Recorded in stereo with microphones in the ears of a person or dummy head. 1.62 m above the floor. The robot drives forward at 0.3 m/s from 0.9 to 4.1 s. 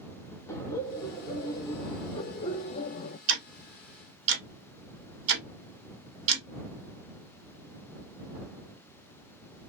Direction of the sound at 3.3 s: 70° right (ahead or behind).